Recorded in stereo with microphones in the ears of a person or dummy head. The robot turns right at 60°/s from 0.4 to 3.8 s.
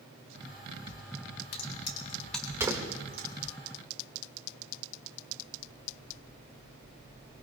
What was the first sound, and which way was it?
A crack, 50° left (ahead or behind).